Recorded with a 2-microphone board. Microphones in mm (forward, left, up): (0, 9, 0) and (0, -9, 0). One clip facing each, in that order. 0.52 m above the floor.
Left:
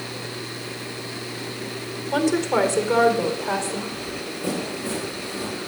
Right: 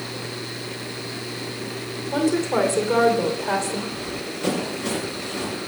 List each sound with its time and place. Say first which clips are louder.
2.1 s a woman speaking: left 1 dB; 45° left (ahead or behind), 2 m; by 3.8 s 10° right (ahead or behind), 2.5 m
3.9 s running footsteps: right 1 dB; 55° right (ahead or behind), 5 m; by 5.6 s 65° right (ahead or behind), 6 m